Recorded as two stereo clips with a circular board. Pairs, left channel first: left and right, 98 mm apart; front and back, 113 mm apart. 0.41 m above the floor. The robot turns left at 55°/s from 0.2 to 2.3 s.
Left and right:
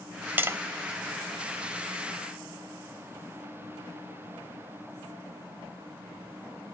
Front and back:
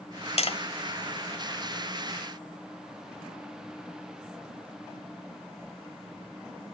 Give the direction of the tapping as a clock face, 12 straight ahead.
1 o'clock.